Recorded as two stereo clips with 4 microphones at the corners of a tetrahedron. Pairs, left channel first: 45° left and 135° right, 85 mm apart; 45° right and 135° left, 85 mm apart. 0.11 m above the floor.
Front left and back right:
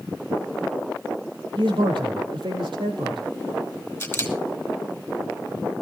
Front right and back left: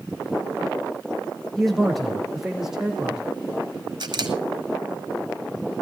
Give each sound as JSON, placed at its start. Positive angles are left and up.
{"t": 1.6, "sound": "a man speaking", "azimuth_deg": -130, "distance_m": 3.5}
{"t": 4.0, "sound": "a camera shutter", "azimuth_deg": 105, "distance_m": 2.0}